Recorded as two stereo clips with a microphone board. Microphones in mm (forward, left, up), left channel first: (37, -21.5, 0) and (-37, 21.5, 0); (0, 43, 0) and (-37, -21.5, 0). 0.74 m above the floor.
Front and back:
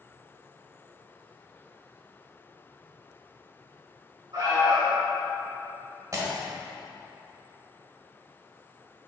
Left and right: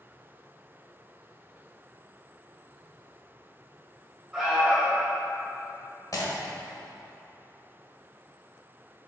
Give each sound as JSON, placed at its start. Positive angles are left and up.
{"t": 4.3, "sound": "an alarm", "azimuth_deg": 155, "distance_m": 2.5}
{"t": 6.1, "sound": "breaking glass", "azimuth_deg": 100, "distance_m": 1.5}